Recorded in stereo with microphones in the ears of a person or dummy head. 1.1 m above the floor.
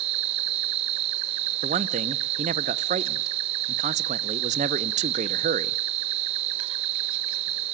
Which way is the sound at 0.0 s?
40° right (ahead or behind).